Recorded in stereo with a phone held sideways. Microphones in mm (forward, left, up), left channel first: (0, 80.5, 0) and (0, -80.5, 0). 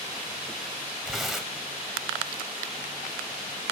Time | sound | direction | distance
1.1 | tearing paper | centre (ahead or behind) | 0.9 m